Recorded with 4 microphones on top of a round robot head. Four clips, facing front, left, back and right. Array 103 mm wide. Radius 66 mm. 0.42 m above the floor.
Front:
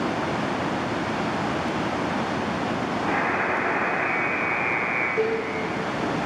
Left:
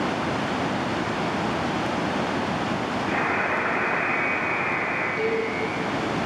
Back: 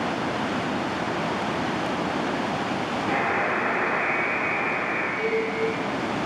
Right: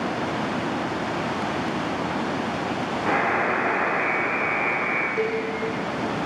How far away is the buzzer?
About 8 m.